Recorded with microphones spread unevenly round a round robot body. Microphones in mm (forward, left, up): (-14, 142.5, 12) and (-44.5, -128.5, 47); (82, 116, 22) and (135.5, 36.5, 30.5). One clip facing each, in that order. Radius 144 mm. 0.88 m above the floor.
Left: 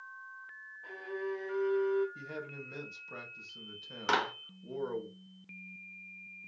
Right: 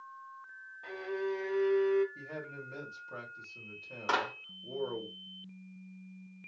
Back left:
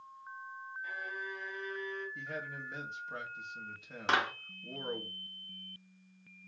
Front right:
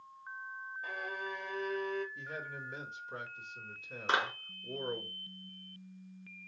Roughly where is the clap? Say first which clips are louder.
Left 1 dB, back left 1 dB; behind left.